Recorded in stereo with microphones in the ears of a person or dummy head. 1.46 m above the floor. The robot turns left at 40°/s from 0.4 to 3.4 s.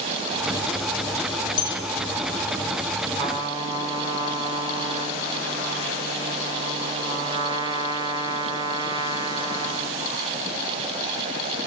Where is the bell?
25° left (ahead or behind), 2.5 m; by 1.8 s 15° left (ahead or behind), 2.5 m.